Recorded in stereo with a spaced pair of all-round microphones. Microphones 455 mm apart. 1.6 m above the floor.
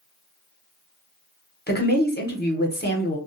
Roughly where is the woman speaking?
Left.